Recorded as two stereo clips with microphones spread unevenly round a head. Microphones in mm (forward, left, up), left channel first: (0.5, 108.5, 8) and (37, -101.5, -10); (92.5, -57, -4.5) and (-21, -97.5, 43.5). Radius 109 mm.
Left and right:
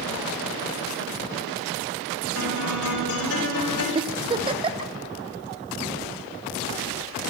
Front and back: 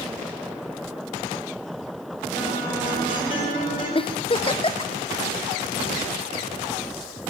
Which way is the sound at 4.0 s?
15° right.